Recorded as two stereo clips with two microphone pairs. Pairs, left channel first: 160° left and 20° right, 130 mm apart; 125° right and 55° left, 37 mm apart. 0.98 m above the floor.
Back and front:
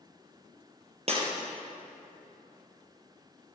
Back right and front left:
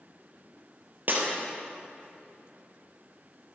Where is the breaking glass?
20° left, 3.5 m.